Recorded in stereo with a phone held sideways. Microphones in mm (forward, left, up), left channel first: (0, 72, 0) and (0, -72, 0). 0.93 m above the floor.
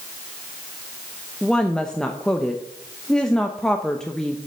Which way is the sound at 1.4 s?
5° left (ahead or behind).